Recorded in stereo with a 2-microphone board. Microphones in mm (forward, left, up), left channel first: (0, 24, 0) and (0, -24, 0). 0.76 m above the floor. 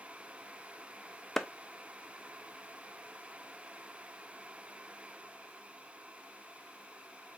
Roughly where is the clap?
Centre.